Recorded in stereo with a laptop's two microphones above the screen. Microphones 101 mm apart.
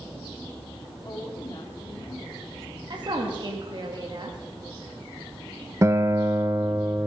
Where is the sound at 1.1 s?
45° left (ahead or behind), 2 m.